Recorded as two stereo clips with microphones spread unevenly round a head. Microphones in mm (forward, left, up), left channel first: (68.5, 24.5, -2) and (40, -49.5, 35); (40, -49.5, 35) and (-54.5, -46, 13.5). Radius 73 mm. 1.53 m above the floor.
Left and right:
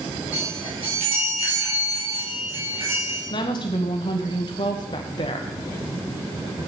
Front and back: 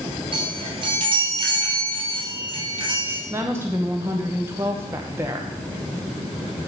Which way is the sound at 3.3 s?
105° left.